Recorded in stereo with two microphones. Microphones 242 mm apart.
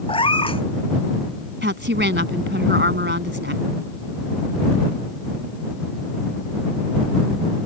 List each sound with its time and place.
0.1 s a cat meowing: 20° left (ahead or behind)
1.6 s a woman speaking: 50° right (ahead or behind)